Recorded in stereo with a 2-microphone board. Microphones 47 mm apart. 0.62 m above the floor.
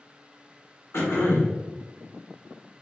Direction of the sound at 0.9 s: 60° left (ahead or behind).